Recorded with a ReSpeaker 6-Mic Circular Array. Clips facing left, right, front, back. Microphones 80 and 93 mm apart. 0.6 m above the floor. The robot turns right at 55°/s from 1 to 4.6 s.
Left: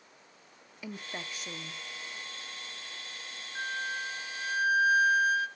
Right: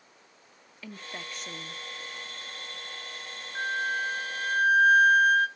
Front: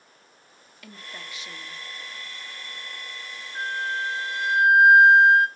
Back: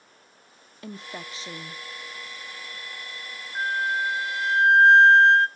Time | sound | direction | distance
0.8 | a woman speaking | 155° left | 0.6 m
3.5 | a flute | 135° right | 0.7 m